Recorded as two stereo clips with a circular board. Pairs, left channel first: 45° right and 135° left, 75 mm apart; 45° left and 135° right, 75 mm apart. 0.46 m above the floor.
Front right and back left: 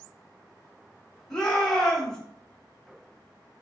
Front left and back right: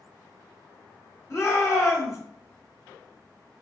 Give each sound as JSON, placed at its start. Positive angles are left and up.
{"t": 1.3, "sound": "a shout", "azimuth_deg": 35, "distance_m": 1.0}